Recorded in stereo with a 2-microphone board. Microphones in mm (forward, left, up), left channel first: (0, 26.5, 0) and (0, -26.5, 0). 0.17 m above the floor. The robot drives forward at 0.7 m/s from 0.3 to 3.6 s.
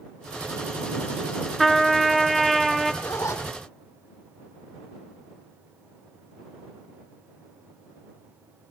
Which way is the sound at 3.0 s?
75° left (ahead or behind).